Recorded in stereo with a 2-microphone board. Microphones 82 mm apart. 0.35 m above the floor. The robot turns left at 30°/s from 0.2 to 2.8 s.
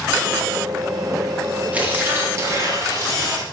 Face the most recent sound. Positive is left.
turn(degrees=-50)